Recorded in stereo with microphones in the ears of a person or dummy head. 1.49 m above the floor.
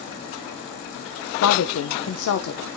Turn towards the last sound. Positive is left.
turn(degrees=80)